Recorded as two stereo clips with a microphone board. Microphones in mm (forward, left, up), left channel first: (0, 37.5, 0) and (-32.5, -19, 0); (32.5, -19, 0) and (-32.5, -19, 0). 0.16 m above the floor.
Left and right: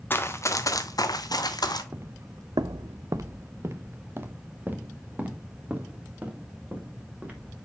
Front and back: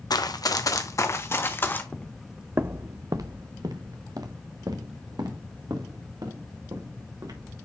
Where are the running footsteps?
Straight ahead, 1.2 m; by 1.8 s 60° left, 2.0 m.